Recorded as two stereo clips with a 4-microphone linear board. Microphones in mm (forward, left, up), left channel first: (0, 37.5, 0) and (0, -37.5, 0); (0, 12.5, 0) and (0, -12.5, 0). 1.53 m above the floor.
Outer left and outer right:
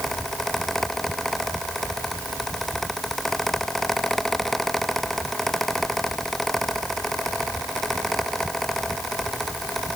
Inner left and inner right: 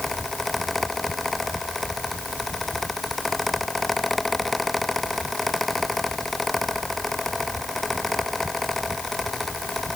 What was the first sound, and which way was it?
Only background noise.